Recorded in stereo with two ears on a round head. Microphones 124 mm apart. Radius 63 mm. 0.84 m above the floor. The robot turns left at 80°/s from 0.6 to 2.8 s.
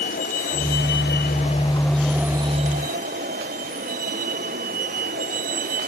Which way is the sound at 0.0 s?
115° left.